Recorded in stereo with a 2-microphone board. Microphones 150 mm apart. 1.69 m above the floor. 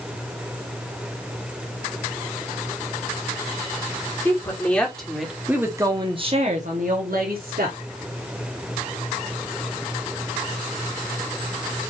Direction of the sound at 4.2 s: 15° left (ahead or behind).